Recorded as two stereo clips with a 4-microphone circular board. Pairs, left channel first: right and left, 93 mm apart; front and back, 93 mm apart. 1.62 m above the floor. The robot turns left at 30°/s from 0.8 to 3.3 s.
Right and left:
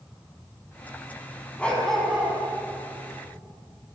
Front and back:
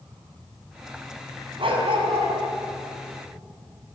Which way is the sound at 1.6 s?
165° right.